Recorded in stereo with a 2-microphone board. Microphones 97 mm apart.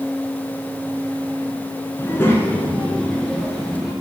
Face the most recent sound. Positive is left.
turn(degrees=-5)  # may be behind; listen again after turning